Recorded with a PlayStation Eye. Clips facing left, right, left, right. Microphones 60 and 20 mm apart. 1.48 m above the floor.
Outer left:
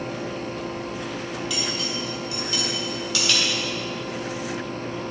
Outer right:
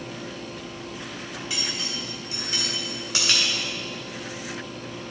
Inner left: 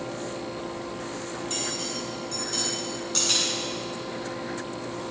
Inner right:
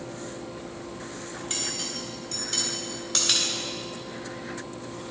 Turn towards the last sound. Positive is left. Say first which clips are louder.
# outer left 2 dB, inner right 1 dB
turn(degrees=-25)  # may be behind; listen again after turning